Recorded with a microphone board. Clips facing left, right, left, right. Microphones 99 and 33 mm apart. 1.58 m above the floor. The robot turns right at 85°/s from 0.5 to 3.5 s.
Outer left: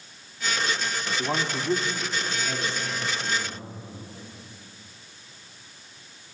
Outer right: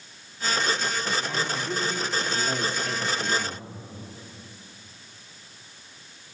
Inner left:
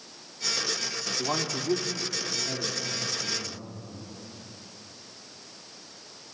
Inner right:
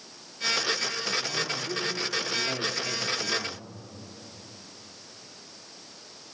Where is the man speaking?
100° left, 3 m; by 3.6 s 65° right, 3 m.